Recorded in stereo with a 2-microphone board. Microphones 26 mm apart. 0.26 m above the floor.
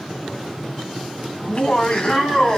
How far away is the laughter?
About 1.8 m.